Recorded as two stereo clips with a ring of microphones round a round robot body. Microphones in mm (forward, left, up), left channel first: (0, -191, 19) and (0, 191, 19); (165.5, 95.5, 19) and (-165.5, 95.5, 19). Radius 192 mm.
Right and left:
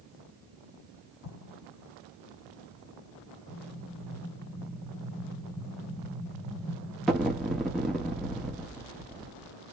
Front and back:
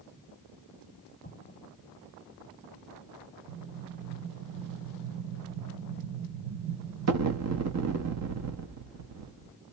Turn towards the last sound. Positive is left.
turn(degrees=180)